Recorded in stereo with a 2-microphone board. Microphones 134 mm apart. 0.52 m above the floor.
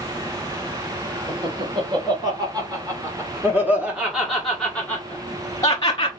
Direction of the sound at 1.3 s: 40° right (ahead or behind).